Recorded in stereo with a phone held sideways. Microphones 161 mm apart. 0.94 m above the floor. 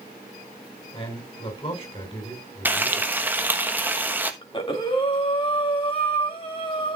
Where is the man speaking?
25° left (ahead or behind), 6 m.